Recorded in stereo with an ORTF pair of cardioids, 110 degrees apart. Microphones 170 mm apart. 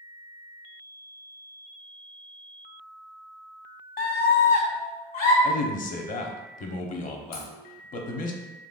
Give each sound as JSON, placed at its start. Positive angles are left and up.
{"t": 4.0, "sound": "a scream", "azimuth_deg": 65, "distance_m": 1.0}
{"t": 5.4, "sound": "a man speaking", "azimuth_deg": 55, "distance_m": 0.8}
{"t": 7.3, "sound": "a crack", "azimuth_deg": 65, "distance_m": 1.5}